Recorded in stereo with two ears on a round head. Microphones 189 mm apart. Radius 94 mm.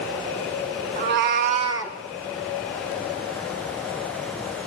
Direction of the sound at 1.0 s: 40° right (ahead or behind).